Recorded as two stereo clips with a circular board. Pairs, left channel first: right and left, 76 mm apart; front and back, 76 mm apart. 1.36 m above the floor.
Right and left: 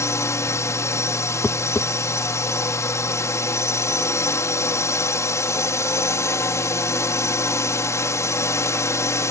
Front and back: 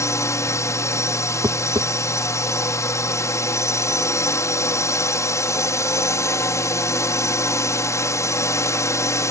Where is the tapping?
155° right.